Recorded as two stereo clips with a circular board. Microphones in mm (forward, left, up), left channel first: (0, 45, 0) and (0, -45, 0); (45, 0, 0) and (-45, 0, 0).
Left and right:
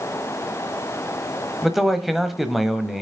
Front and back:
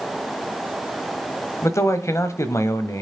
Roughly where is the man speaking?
Ahead.